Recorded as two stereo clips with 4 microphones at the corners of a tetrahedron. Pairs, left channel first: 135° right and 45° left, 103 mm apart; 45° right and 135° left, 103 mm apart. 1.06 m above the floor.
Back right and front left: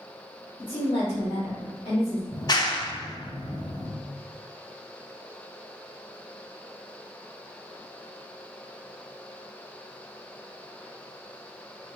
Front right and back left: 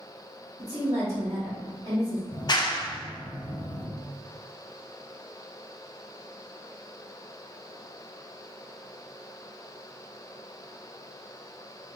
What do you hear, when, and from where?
0.6 s a woman speaking: 165° right, 1.6 m
2.3 s a clap: 90° right, 0.5 m